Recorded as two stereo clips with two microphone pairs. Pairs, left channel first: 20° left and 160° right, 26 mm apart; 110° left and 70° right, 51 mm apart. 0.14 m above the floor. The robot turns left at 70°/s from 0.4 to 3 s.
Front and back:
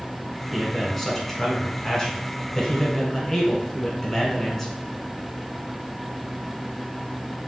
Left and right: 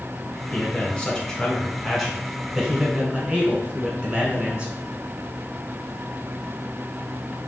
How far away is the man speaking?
About 1.1 m.